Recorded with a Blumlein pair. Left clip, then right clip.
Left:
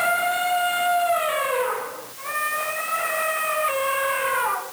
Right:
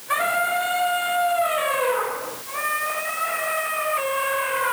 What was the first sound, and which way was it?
Only background noise.